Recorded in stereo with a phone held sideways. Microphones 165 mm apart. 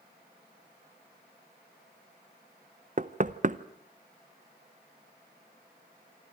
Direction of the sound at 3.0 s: 50° right (ahead or behind).